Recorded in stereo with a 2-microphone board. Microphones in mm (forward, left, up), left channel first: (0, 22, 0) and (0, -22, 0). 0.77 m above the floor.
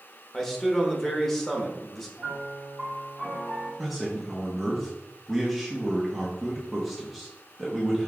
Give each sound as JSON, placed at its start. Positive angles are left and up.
{"t": 0.3, "sound": "a man speaking", "side_deg": 10, "distance_m": 1.0}
{"t": 2.2, "sound": "a piano", "side_deg": 0, "distance_m": 1.9}
{"t": 3.8, "sound": "a man speaking", "side_deg": 0, "distance_m": 0.9}